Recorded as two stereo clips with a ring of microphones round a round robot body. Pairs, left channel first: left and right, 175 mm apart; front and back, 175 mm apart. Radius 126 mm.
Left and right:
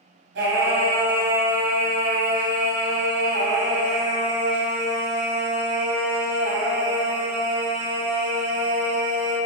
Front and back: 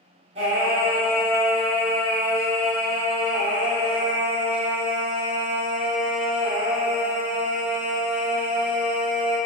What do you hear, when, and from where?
0.3 s singing: 115° right, 1.9 m